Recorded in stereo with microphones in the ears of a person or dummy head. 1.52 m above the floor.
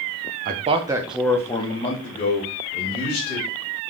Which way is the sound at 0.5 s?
40° right (ahead or behind).